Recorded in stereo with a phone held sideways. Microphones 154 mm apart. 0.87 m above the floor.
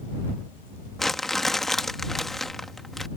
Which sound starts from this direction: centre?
Crumpling, at 1.0 s.